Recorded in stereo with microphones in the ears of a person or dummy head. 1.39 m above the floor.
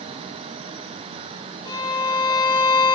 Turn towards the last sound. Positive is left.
turn(degrees=20)  # may be behind; listen again after turning